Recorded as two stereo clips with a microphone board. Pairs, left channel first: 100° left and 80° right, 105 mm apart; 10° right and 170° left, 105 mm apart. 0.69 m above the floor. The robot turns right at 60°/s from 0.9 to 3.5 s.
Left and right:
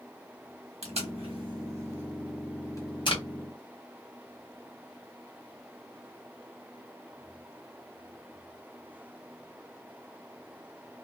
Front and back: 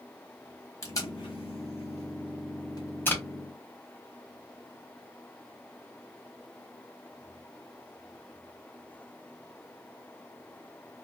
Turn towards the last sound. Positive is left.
turn(degrees=85)